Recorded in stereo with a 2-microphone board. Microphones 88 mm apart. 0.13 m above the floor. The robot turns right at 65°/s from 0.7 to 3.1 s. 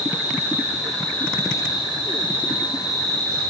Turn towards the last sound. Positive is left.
turn(degrees=145)